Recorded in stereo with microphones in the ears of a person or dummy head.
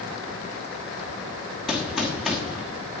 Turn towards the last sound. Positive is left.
turn(degrees=0)  # may be behind; listen again after turning